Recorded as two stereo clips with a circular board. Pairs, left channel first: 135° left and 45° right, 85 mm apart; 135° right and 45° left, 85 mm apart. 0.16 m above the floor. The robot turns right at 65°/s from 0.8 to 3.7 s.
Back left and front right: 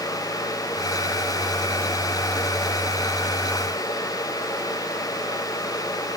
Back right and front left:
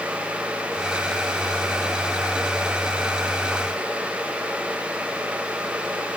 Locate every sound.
Only background noise.